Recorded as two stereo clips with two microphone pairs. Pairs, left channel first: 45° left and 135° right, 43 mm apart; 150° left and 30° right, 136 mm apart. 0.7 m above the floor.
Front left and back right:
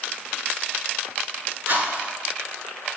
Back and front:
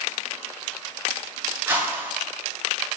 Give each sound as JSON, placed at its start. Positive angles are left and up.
{"t": 1.7, "sound": "a whoosh", "azimuth_deg": -105, "distance_m": 9.5}